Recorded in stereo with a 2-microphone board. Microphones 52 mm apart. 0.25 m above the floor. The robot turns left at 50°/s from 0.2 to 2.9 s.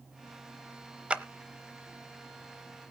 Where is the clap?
20° right (ahead or behind), 0.7 m.